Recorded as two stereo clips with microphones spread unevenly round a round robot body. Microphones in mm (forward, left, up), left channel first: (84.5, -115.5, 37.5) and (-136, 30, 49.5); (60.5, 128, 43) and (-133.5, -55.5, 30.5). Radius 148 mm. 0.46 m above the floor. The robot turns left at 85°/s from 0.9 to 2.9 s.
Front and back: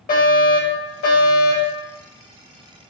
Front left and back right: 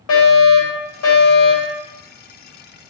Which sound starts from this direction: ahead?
A fire alarm, at 0.1 s.